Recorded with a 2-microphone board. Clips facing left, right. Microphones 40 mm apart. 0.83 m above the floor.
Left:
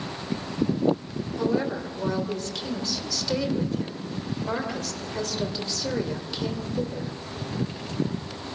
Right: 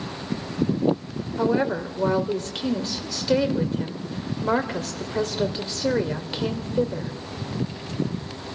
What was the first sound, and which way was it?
A woman speaking, 35° right (ahead or behind).